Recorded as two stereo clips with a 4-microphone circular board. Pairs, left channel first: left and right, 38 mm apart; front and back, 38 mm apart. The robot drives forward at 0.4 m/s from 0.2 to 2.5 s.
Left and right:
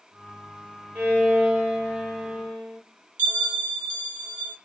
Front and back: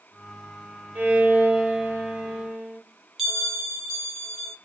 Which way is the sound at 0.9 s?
140° right.